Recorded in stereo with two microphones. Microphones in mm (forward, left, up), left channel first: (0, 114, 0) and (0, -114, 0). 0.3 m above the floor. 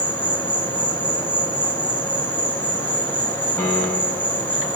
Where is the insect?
20° right (ahead or behind), 4 m.